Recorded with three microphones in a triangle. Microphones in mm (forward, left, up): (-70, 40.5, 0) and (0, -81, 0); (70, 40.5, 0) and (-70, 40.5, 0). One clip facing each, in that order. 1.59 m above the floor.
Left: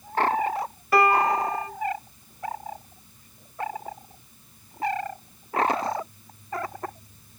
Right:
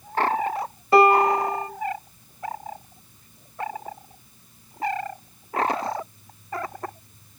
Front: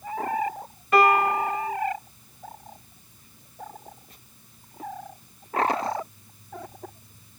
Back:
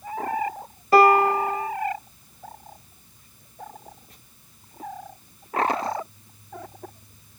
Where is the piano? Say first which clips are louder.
Right 4 dB, back 4 dB; 125° right, 1.3 m.